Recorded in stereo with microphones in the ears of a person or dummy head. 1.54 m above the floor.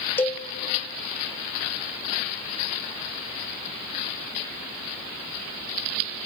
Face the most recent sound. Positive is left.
turn(degrees=10)  # may be behind; listen again after turning